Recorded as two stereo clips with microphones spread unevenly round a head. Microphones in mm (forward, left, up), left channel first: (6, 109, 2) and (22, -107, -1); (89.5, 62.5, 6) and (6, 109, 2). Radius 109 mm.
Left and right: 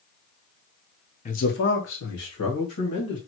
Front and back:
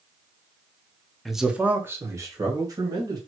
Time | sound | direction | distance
1.2 | a man speaking | 60° left | 0.7 m